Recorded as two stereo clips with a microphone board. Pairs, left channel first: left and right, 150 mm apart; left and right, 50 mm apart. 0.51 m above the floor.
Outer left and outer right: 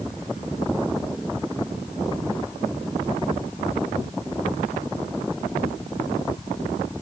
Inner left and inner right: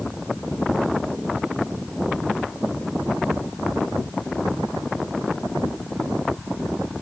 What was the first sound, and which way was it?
Only background noise.